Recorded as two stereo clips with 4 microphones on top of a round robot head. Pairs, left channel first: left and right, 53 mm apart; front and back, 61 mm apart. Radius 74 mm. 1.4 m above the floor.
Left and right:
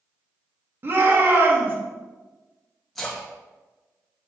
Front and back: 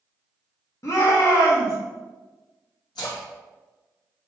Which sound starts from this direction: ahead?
A splash, at 3.0 s.